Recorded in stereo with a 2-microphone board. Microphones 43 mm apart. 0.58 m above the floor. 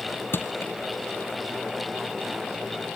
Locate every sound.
0.3 s crushing: 60° left (ahead or behind)